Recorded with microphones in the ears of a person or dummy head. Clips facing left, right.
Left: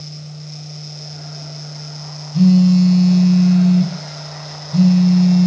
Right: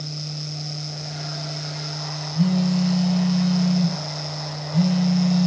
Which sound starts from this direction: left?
A phone buzzing, at 2.3 s.